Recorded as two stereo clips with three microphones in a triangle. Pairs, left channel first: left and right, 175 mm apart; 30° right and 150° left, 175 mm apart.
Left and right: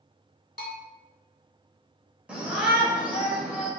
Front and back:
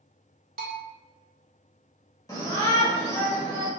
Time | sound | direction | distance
0.6 | a bell | 115° left | 0.6 m
2.3 | a shout | 20° right | 0.9 m